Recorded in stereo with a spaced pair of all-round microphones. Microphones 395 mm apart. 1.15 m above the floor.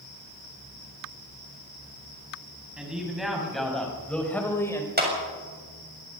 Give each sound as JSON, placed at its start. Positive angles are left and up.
{"t": 2.8, "sound": "a man speaking", "side_deg": 0, "distance_m": 7.0}
{"t": 5.0, "sound": "a clap", "side_deg": -25, "distance_m": 7.0}